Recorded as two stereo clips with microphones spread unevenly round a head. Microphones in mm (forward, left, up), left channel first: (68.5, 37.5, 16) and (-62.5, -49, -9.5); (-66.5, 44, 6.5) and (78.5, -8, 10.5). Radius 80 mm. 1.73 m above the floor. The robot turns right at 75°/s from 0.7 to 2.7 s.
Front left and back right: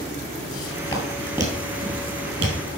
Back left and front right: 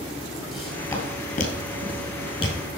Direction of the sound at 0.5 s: 70° left.